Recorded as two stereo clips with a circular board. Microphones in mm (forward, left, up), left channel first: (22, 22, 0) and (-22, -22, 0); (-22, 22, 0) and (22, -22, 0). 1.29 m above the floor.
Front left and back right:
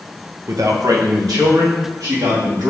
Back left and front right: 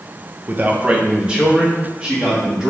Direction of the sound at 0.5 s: 100° right.